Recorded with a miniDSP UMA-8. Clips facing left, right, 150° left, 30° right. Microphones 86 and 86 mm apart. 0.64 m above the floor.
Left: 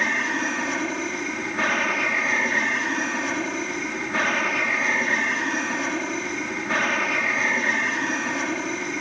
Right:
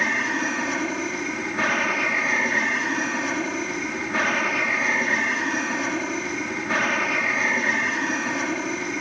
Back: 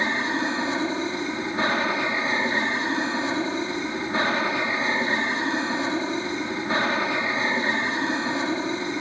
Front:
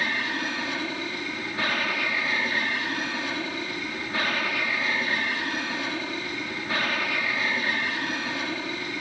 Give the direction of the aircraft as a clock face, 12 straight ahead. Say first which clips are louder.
Even, back 4 dB; 6 o'clock.